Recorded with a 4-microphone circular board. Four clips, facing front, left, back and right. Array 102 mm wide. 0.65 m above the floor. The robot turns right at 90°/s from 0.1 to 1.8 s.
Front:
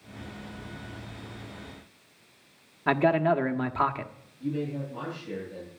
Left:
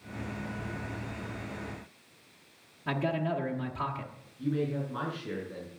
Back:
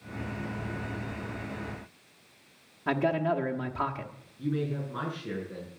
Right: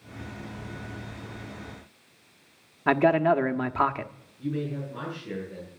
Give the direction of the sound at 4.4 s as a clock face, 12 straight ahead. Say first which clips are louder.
Even, even; 7 o'clock.